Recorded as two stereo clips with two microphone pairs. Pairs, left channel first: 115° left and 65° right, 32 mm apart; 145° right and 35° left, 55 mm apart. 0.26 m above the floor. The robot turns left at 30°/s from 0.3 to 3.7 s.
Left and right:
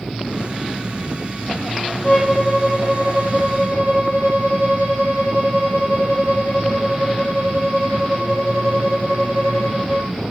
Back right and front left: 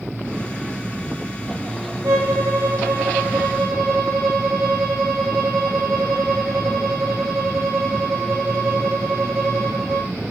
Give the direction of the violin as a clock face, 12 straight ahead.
12 o'clock.